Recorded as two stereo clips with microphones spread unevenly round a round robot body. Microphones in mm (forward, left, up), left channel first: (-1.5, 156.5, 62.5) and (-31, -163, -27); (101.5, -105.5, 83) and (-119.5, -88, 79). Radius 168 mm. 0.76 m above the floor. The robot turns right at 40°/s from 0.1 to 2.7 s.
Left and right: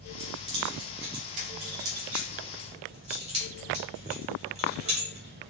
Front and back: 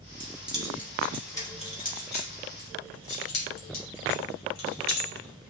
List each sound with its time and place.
0.2 s keys jangling: 125° right, 2.5 m; by 5.5 s 25° right, 2.5 m